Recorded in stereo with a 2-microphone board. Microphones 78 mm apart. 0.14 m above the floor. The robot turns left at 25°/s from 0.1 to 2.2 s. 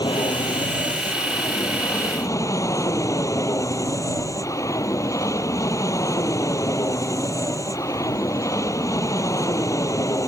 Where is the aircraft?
100° left; by 10.3 s 45° left.